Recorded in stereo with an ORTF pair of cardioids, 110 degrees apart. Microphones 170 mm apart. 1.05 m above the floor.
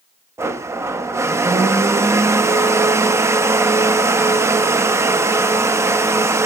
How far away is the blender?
About 0.9 m.